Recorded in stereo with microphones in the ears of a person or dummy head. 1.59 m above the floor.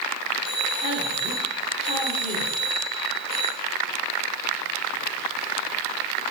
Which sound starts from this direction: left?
A man speaking, at 0.4 s.